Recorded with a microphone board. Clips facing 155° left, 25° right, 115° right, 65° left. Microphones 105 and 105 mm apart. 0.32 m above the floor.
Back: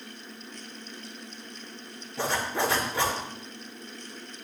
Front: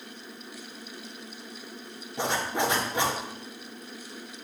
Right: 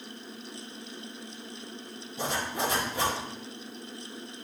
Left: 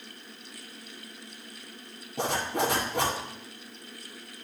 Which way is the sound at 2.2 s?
50° left.